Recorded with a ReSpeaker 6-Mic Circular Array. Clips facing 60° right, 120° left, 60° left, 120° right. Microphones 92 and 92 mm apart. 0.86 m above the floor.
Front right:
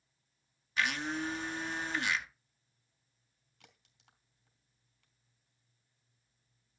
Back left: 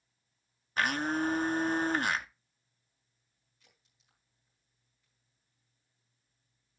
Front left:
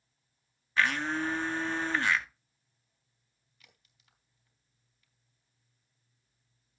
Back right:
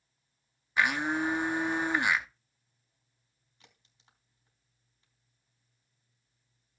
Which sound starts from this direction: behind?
A blender, at 0.8 s.